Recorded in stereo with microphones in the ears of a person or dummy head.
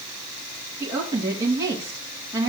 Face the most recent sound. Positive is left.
turn(degrees=-20)  # may be behind; listen again after turning